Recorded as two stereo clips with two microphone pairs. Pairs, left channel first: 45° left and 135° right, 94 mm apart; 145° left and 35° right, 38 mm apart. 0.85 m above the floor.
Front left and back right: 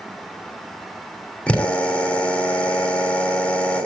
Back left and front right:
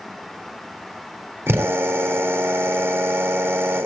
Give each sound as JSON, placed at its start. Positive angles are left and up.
{"t": 1.5, "sound": "a drill", "azimuth_deg": -30, "distance_m": 3.0}